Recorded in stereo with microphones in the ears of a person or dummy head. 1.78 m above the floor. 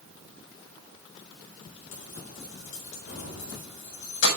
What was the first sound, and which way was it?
Keys jangling, 75° left (ahead or behind).